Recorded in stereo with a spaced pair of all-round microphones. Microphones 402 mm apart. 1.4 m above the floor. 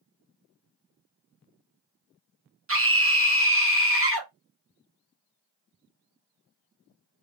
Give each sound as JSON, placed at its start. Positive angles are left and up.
{"t": 2.7, "sound": "a scream", "side_deg": -30, "distance_m": 1.2}